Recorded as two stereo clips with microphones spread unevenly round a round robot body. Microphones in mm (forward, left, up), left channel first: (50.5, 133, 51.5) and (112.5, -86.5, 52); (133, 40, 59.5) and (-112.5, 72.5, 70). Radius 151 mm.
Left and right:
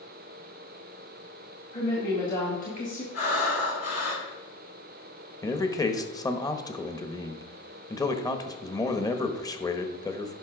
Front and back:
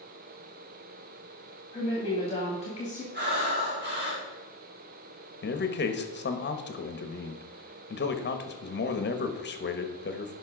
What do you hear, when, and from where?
1.7 s a woman speaking: 60° left, 3 m; by 3.0 s 50° left, 2.0 m
3.1 s breathing: 125° left, 3.5 m
5.4 s a man speaking: 30° left, 1.3 m